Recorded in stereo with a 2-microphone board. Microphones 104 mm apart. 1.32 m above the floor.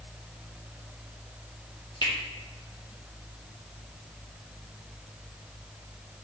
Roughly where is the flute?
No flute in this recording.